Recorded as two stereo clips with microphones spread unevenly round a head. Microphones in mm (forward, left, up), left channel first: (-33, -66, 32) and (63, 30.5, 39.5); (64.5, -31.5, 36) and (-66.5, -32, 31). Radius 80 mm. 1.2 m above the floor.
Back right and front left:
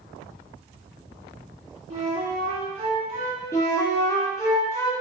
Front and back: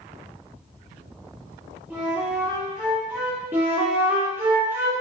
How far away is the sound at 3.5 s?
About 0.6 m.